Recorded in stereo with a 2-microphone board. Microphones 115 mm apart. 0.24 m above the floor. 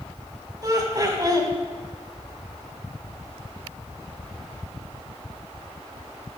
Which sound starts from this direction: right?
Laughter, at 0.6 s.